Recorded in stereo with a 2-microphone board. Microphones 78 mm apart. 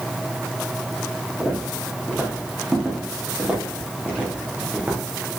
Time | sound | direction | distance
1.4 | footsteps | 15° right (ahead or behind) | 5.5 m